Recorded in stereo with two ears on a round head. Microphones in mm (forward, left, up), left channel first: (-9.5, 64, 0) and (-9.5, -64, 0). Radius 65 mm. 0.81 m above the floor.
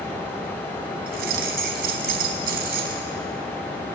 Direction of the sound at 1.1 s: 70° right (ahead or behind).